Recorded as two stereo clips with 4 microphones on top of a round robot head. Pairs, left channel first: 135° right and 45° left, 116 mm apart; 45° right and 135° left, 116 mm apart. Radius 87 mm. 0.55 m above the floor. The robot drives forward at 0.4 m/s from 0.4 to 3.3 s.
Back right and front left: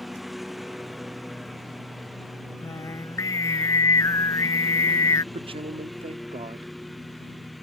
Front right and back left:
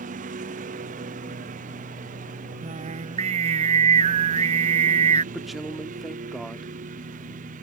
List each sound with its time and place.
0.0 s a lawn mower: 135° left
2.6 s singing: 160° left; by 5.2 s 165° left
5.3 s a man speaking: 45° left